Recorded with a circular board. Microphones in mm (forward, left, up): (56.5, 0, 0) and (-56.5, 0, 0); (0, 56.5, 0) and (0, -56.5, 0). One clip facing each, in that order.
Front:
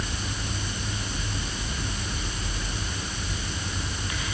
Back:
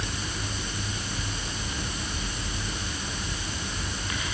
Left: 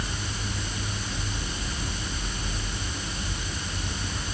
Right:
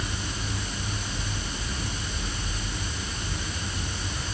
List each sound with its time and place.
Only background noise.